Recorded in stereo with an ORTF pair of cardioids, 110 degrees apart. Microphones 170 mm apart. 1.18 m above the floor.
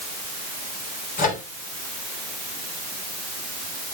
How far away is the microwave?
About 3.5 m.